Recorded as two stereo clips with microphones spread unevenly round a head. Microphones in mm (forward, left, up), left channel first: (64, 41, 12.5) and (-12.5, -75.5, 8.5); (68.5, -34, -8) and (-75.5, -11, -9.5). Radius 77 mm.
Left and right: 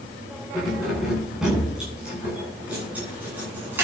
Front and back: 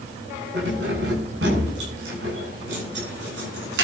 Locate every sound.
0.5 s keys jangling: 145° left, 9.5 m; by 3.9 s 160° left, 10 m